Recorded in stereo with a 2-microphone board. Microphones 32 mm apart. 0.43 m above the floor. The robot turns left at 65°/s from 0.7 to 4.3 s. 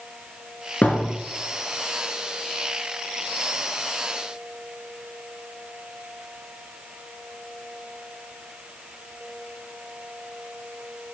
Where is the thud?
55° left (ahead or behind), 3 m; by 1.1 s 75° left (ahead or behind), 3 m.